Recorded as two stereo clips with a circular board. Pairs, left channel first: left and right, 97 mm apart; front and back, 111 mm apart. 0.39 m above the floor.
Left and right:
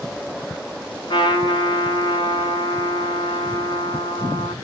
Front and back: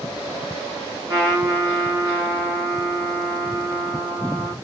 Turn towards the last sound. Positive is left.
turn(degrees=125)